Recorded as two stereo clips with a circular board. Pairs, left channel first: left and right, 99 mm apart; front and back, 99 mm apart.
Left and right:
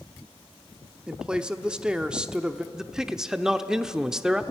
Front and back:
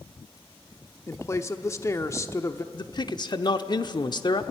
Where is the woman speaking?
15° right, 1.0 m.